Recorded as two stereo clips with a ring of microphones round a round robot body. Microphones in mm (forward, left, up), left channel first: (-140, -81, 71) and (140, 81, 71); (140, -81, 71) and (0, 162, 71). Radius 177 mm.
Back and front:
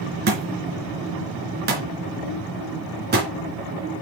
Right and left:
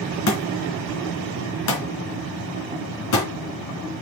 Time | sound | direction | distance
0.3 | a thud | 30° right | 3.5 m